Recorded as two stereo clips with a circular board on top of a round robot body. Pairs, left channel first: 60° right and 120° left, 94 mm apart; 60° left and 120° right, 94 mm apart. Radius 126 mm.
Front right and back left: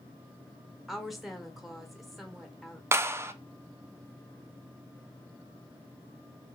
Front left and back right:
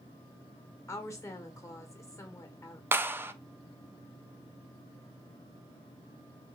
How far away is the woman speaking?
About 1.3 m.